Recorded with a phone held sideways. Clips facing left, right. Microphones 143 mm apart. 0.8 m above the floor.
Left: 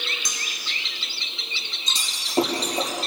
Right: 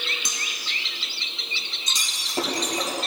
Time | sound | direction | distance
0.2 | cutlery clinking | 25° right (ahead or behind) | 5 m
1.9 | breaking glass | 25° left (ahead or behind) | 7 m